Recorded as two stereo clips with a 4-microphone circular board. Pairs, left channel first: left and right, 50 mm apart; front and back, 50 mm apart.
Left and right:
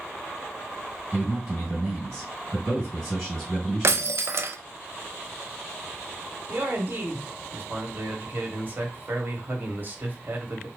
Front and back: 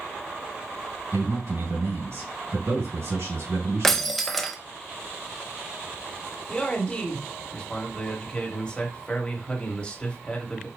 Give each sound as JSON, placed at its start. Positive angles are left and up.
{"t": 1.1, "sound": "a man speaking", "azimuth_deg": 165, "distance_m": 3.0}
{"t": 3.8, "sound": "breaking glass", "azimuth_deg": -85, "distance_m": 0.5}
{"t": 6.5, "sound": "a man speaking", "azimuth_deg": -60, "distance_m": 1.5}